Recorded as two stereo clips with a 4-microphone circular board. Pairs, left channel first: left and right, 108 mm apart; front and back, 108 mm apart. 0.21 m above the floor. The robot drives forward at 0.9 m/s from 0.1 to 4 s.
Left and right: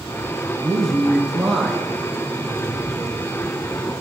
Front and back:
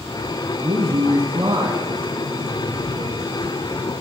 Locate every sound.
0.6 s a man speaking: straight behind, 2.5 m